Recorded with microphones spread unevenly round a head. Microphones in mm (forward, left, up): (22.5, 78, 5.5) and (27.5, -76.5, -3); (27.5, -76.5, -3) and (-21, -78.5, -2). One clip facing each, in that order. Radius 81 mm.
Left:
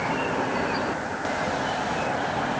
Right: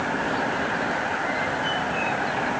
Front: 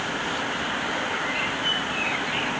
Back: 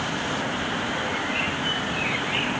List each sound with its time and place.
Only background noise.